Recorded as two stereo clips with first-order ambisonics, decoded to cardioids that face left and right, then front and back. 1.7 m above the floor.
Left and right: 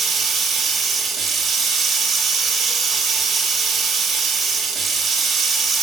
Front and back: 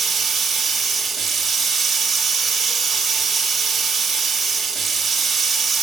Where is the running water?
125° right, 1.2 m.